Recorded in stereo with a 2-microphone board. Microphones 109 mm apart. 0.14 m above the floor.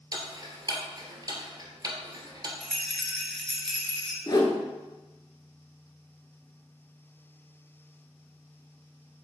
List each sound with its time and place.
0.1 s ticking: 35° right (ahead or behind), 1.4 m
2.6 s a rattle: 5° left (ahead or behind), 1.8 m
4.3 s a whoosh: 40° left (ahead or behind), 1.1 m